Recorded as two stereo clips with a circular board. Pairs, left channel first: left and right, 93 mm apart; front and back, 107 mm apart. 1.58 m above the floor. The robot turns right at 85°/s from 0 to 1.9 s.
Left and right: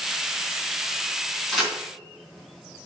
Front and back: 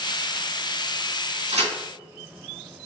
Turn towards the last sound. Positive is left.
turn(degrees=-150)